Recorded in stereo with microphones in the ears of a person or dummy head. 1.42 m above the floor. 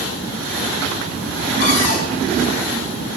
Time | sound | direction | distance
1.6 | a cupboard door | 60° left (ahead or behind) | 2.5 m